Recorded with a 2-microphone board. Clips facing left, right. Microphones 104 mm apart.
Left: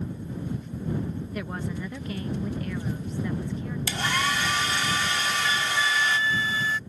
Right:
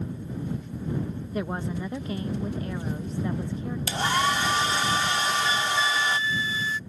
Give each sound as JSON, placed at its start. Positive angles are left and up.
{"t": 1.3, "sound": "a woman speaking", "side_deg": -25}
{"t": 3.9, "sound": "a hair dryer", "side_deg": -30}
{"t": 5.2, "sound": "a flute", "side_deg": 80}